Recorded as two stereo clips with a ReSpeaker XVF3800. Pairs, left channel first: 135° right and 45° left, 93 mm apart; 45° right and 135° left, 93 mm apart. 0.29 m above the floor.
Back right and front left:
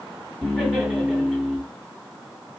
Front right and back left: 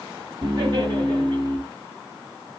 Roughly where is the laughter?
Behind left.